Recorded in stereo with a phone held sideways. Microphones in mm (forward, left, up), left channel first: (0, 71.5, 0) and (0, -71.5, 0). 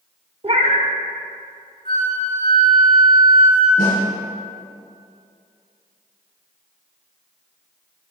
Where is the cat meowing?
40° right (ahead or behind), 0.9 m.